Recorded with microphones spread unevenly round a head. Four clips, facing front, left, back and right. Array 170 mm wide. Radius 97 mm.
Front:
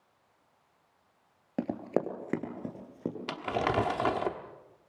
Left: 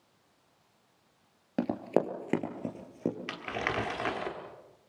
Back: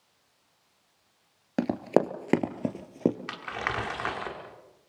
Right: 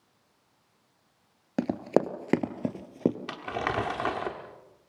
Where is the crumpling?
5° right, 1.2 m.